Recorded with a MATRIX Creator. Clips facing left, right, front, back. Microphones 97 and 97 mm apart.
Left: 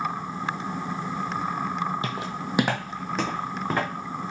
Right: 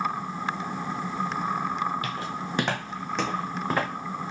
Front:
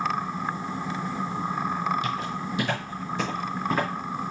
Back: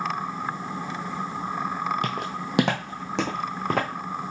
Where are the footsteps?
155° left, 0.8 m; by 3.9 s straight behind, 2.0 m.